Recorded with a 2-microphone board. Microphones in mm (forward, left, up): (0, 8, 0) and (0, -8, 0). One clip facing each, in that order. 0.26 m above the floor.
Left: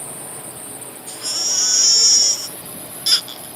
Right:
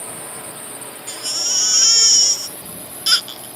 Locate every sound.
0.0 s a drone: 35° right (ahead or behind); by 3.6 s 55° right (ahead or behind)
1.1 s a baby crying: 75° right (ahead or behind)